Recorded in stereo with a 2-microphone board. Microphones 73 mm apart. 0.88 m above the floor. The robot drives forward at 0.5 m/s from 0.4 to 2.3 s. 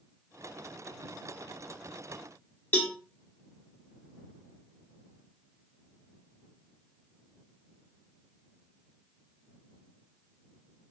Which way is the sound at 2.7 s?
25° left (ahead or behind).